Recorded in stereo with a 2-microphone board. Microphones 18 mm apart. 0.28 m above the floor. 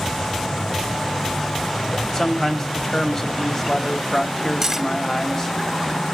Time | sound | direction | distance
2.1 | a man speaking | 25° left (ahead or behind) | 1.4 m
4.6 | cutlery clinking | 20° right (ahead or behind) | 0.8 m